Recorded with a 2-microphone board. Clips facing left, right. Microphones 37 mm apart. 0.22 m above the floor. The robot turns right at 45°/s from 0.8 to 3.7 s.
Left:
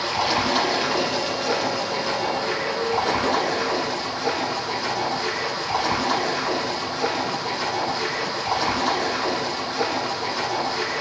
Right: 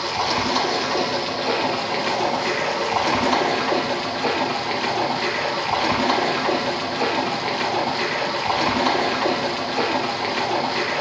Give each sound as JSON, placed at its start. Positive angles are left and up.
{"t": 0.0, "sound": "running water", "azimuth_deg": 175, "distance_m": 4.5}